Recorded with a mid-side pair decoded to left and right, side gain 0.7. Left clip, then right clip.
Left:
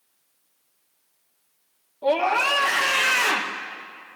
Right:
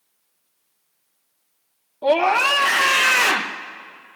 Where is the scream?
25° right, 0.8 m.